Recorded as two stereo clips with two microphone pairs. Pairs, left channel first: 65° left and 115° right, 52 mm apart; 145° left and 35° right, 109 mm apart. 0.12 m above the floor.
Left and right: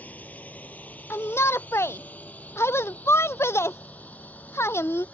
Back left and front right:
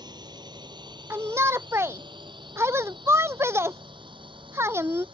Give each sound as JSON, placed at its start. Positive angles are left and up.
{"t": 0.0, "sound": "a drone", "azimuth_deg": 10}
{"t": 1.1, "sound": "a shout", "azimuth_deg": 30}